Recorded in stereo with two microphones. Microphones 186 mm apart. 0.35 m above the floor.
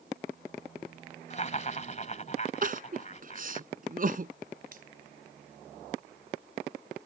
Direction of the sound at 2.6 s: 50° right (ahead or behind).